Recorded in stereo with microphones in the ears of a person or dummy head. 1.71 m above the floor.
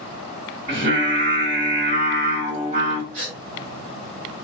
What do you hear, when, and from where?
0.7 s singing: 45° right (ahead or behind), 1.7 m
3.1 s a gasp: 45° right (ahead or behind), 1.5 m